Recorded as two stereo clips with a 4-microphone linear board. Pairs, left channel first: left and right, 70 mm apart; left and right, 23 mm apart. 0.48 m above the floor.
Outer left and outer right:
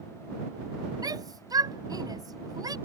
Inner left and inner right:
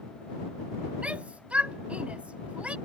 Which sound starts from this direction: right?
A shout, at 1.0 s.